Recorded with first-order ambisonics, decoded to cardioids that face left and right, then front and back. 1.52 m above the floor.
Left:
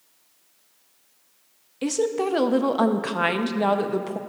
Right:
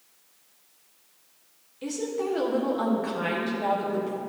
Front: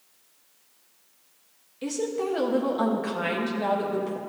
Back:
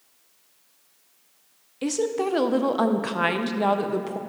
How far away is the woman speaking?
About 0.6 m.